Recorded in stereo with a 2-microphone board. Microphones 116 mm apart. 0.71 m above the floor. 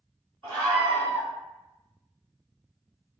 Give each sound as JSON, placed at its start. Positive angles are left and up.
{"t": 0.4, "sound": "a scream", "side_deg": 25, "distance_m": 1.8}